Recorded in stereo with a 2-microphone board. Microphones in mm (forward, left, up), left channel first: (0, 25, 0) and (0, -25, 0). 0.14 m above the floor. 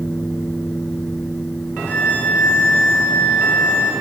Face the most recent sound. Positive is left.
turn(degrees=35)  # may be behind; listen again after turning